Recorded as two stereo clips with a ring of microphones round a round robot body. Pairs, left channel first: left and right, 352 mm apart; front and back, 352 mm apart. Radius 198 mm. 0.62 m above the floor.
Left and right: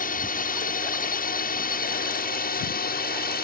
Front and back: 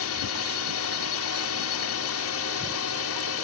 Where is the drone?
30° left; by 3.5 s 35° left.